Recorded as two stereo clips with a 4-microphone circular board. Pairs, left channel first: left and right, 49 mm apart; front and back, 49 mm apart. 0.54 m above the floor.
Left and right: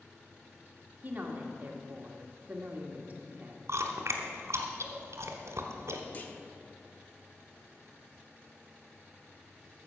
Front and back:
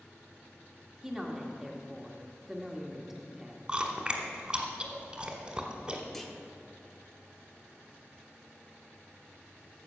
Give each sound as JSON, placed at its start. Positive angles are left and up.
{"t": 1.0, "sound": "a woman speaking", "azimuth_deg": -105, "distance_m": 1.4}
{"t": 3.7, "sound": "chewing", "azimuth_deg": -105, "distance_m": 1.3}
{"t": 6.1, "sound": "a clunk", "azimuth_deg": 80, "distance_m": 1.0}